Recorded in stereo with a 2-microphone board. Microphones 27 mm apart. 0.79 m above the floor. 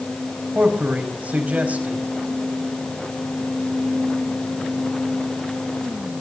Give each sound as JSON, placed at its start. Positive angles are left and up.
{"t": 0.6, "sound": "a man speaking", "side_deg": -80, "distance_m": 4.5}